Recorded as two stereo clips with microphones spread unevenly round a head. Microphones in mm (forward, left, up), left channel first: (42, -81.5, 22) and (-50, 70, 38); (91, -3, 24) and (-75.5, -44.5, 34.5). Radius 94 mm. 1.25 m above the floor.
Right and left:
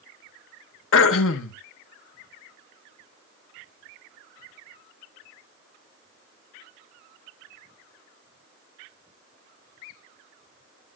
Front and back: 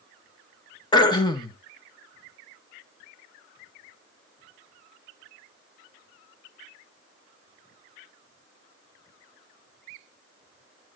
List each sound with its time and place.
0.9 s throat clearing: 55° right, 1.1 m